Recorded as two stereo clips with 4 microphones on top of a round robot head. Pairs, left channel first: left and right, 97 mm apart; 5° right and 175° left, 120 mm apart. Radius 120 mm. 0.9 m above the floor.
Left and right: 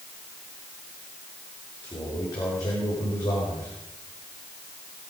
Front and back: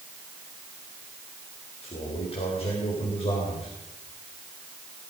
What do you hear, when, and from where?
1.8 s a man speaking: 30° left, 4 m